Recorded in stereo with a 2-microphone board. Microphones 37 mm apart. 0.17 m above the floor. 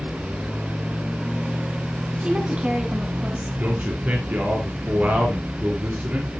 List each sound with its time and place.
2.2 s a woman speaking: 30° right (ahead or behind), 1.7 m
3.6 s a man speaking: 50° right (ahead or behind), 3.5 m